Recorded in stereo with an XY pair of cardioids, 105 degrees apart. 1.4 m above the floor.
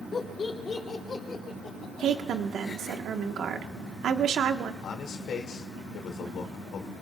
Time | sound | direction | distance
0.1 | laughter | 40° left | 3 m
2.0 | a woman speaking | 60° right | 1.4 m
4.8 | a man speaking | 65° left | 2.5 m